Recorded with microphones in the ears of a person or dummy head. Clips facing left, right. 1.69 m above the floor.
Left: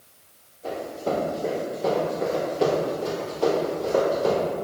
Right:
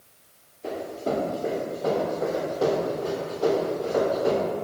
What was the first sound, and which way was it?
Running footsteps, 20° right (ahead or behind).